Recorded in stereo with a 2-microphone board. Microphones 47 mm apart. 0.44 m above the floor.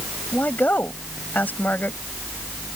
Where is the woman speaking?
40° left (ahead or behind).